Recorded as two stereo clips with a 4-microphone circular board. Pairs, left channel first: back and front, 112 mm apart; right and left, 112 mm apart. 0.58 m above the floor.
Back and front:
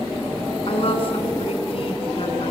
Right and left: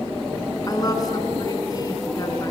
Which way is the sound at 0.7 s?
145° right.